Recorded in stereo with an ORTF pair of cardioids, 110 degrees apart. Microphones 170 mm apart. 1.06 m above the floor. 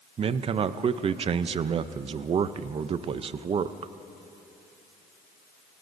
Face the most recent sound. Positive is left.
turn(degrees=-35)